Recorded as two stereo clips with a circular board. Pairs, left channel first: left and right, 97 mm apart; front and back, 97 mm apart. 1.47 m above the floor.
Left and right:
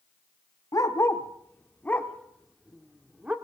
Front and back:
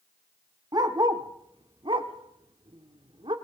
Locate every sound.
0.7 s a dog barking: 140° left, 2.0 m; by 3.4 s 165° right, 1.9 m